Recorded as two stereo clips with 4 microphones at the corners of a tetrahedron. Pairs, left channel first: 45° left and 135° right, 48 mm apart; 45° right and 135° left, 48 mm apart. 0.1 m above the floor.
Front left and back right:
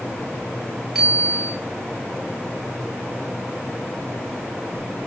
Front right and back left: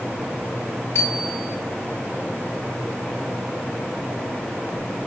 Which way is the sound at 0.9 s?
50° right.